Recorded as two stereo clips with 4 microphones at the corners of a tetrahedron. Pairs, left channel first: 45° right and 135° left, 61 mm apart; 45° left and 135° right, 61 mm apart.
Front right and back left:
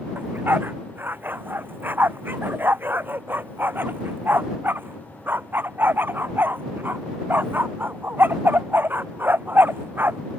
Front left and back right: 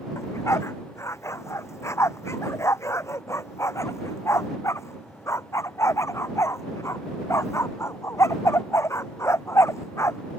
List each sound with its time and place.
0.1 s a dog barking: 80° left